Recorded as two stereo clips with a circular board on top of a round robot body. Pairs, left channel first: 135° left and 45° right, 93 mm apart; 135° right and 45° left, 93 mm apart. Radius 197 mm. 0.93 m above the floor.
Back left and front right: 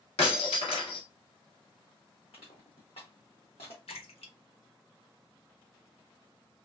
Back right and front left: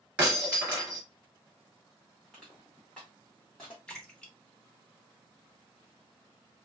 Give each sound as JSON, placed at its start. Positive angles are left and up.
{"t": 0.2, "sound": "breaking glass", "azimuth_deg": 120, "distance_m": 1.4}
{"t": 2.3, "sound": "crushing", "azimuth_deg": 140, "distance_m": 0.6}
{"t": 3.9, "sound": "a splash", "azimuth_deg": 145, "distance_m": 1.1}